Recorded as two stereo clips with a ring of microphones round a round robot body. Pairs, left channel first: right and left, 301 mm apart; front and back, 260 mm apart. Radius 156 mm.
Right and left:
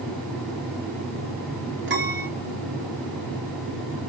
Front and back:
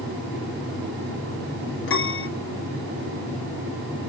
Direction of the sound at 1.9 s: 40° left.